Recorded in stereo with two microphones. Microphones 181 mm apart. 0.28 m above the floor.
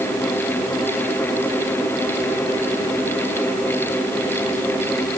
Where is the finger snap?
No finger snap in this recording.